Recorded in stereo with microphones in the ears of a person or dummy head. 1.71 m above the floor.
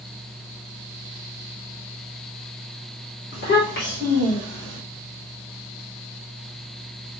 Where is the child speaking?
55° left (ahead or behind), 1.5 m; by 4.8 s 30° left (ahead or behind), 1.0 m.